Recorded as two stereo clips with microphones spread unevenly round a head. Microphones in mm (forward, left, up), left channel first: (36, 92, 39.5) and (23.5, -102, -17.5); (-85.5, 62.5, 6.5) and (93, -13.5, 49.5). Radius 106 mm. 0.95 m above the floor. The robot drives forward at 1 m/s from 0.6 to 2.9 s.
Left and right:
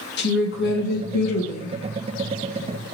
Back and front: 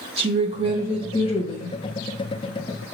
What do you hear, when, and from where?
0.2 s a woman speaking: 45° left, 0.8 m; by 1.8 s 140° left, 0.9 m